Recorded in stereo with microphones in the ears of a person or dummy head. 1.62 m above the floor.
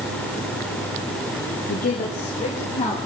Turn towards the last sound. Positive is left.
turn(degrees=30)  # may be behind; listen again after turning